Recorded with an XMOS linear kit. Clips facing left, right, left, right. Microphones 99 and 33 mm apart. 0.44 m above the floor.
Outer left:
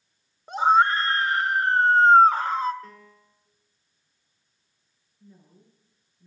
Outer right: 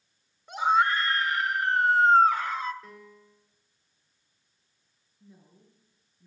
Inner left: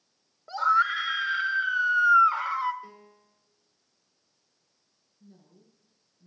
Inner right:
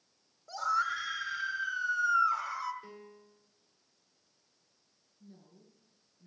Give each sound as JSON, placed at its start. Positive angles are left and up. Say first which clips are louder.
{"t": 0.5, "sound": "a scream", "louder": "outer left 4 dB, inner left 8 dB", "side_deg": 35, "distance_m": 0.9}
{"t": 2.8, "sound": "a piano", "louder": "outer left 1 dB, inner left 1 dB", "side_deg": 0, "distance_m": 1.8}
{"t": 5.2, "sound": "a woman speaking", "louder": "outer left 2 dB, inner left 1 dB", "side_deg": -5, "distance_m": 7.0}